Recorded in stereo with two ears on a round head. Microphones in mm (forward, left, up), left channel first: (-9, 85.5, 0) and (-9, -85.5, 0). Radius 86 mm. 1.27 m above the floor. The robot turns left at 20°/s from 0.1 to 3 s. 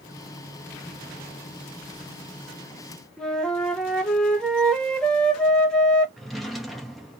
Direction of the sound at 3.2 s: 5° left (ahead or behind).